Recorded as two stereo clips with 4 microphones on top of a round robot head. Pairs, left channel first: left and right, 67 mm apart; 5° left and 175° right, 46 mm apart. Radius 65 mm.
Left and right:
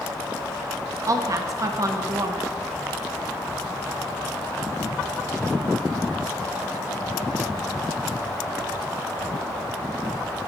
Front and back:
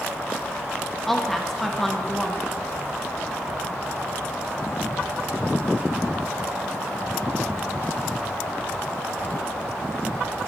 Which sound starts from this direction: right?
A woman speaking, at 1.1 s.